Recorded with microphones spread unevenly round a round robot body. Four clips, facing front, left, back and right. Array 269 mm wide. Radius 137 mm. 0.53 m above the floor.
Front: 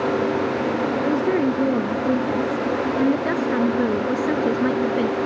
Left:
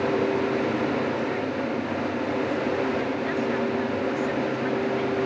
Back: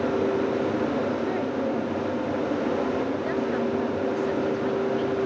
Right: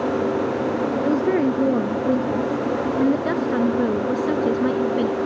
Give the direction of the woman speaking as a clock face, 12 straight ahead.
2 o'clock.